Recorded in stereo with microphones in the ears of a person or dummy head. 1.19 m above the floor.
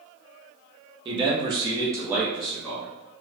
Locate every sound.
1.1 s a man speaking: 25° right (ahead or behind), 0.7 m; by 2.9 s 5° left (ahead or behind), 0.9 m